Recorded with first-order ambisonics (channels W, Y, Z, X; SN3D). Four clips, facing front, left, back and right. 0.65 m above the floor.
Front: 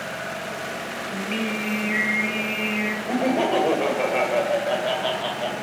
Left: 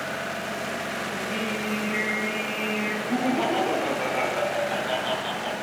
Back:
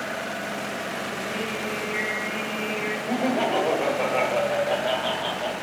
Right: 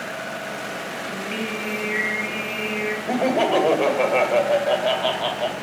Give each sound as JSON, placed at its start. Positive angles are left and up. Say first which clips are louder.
{"t": 1.1, "sound": "singing", "louder": "right 3 dB, front 2 dB", "azimuth_deg": -30, "distance_m": 4.5}
{"t": 3.1, "sound": "laughter", "louder": "right 6 dB, front 2 dB", "azimuth_deg": -80, "distance_m": 2.5}